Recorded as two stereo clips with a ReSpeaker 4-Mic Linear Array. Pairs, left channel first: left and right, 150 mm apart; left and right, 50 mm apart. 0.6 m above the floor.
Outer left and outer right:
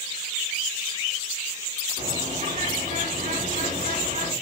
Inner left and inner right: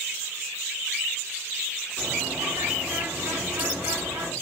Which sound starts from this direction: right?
A bird, at 2.0 s.